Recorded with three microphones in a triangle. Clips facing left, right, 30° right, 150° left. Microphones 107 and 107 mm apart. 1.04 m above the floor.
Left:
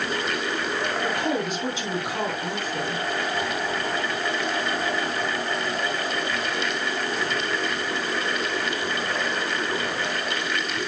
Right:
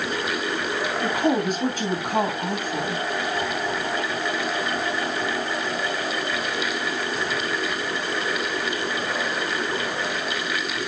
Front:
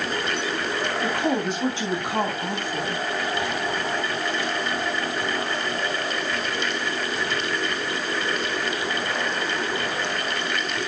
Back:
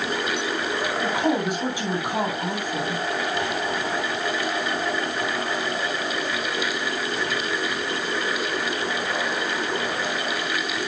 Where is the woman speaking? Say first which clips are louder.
Right 6 dB, back 1 dB; 130° right, 8.5 m.